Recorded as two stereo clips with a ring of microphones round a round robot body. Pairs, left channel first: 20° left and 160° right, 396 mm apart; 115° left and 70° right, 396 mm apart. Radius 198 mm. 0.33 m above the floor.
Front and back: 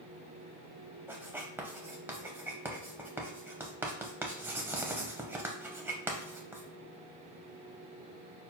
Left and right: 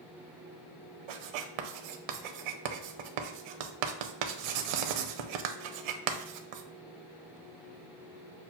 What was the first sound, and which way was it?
Writing, 75° right.